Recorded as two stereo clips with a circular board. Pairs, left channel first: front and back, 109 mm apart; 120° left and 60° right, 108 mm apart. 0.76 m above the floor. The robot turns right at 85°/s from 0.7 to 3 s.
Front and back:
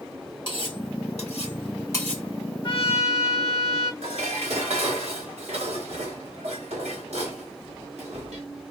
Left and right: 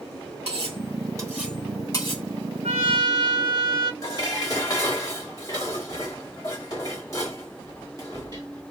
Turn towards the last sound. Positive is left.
turn(degrees=175)